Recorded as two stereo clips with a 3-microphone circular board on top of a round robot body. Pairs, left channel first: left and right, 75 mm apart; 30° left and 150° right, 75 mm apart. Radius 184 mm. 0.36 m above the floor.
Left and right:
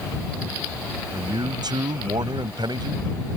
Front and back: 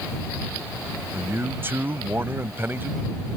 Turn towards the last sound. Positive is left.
turn(degrees=-90)